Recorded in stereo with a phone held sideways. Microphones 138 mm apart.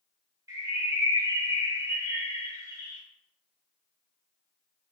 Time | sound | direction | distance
0.5 | a bird | 25° right (ahead or behind) | 1.0 m